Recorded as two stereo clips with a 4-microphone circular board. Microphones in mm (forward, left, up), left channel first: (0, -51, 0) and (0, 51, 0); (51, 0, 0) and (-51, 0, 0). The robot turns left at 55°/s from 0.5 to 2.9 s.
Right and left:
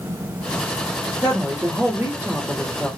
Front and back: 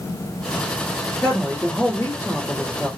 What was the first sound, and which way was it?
A woman speaking, 85° left.